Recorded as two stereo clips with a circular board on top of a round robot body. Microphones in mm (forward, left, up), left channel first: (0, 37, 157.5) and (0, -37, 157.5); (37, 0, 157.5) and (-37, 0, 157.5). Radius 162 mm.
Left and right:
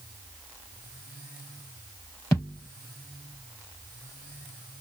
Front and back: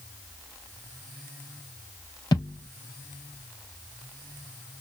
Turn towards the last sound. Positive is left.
turn(degrees=35)